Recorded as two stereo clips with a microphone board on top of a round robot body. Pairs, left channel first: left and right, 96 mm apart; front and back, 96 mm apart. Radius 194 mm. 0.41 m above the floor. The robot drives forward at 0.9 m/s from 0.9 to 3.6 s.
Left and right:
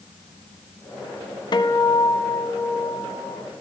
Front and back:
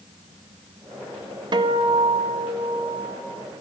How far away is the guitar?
About 0.7 m.